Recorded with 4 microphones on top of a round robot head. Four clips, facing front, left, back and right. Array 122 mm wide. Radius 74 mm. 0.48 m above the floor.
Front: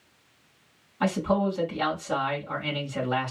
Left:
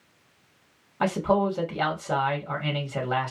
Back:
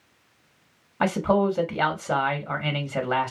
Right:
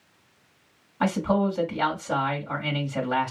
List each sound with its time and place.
1.0 s a man speaking: 160° left, 1.6 m